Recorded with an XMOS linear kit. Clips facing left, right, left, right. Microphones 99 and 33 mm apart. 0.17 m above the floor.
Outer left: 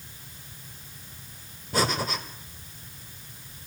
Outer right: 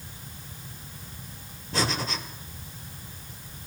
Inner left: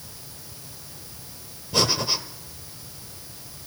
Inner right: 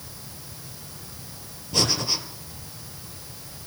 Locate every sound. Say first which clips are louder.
1.7 s breathing: outer left 2 dB, inner left 1 dB; 5° left (ahead or behind), 2 m